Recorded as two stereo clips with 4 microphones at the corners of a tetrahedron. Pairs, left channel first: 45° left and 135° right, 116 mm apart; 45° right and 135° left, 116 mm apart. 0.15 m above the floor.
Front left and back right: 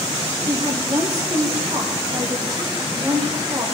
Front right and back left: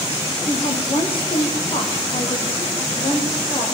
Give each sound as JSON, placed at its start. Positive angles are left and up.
{"t": 0.5, "sound": "a woman speaking", "azimuth_deg": -85, "distance_m": 5.0}